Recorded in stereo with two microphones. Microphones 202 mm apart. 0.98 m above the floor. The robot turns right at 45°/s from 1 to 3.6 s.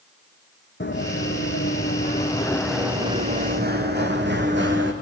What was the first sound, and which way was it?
Running footsteps, 60° left (ahead or behind).